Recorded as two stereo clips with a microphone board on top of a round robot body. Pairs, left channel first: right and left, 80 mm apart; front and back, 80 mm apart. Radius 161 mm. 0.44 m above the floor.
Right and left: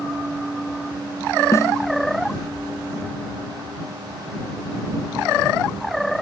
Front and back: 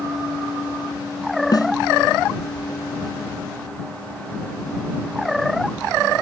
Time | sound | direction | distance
1.5 | a snare drum | 35° right | ?